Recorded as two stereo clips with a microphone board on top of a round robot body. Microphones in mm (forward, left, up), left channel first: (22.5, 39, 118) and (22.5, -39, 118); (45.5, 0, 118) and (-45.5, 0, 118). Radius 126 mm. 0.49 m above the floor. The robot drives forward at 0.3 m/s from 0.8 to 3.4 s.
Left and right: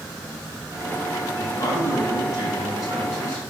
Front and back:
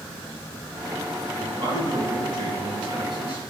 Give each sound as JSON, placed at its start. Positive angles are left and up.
{"t": 1.4, "sound": "a man speaking", "azimuth_deg": 135, "distance_m": 5.5}